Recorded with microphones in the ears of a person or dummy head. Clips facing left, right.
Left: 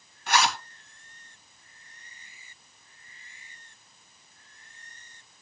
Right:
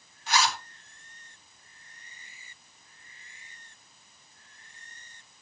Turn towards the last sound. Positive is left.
turn(degrees=60)  # may be behind; listen again after turning